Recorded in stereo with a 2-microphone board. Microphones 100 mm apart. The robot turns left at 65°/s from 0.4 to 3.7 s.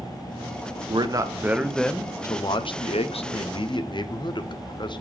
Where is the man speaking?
125° right, 0.7 m; by 5.0 s 50° left, 0.7 m.